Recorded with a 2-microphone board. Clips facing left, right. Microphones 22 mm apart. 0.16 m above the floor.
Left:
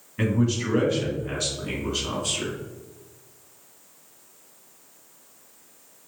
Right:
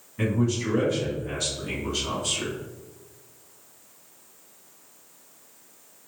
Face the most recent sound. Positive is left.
turn(degrees=-5)  # may be behind; listen again after turning